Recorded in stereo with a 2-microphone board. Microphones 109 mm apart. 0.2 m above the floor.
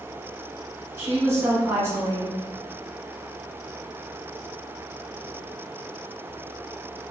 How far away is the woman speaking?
About 1.2 m.